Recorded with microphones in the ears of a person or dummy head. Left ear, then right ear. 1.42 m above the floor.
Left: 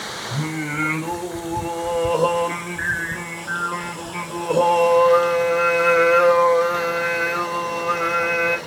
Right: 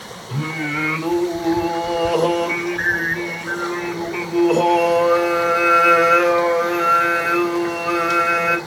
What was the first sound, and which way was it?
Singing, 35° right (ahead or behind).